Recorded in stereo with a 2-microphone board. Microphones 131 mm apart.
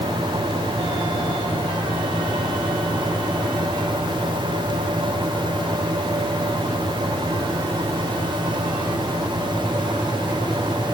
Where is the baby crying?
No baby crying in this recording.